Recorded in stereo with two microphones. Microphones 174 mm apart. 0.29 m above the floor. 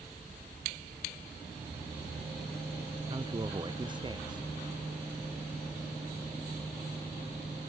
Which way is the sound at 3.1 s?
25° right (ahead or behind).